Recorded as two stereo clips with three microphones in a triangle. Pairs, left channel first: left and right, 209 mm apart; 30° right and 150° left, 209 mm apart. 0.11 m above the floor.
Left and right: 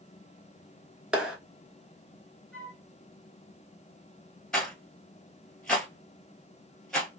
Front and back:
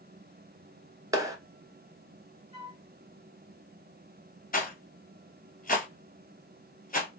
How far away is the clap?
About 0.9 m.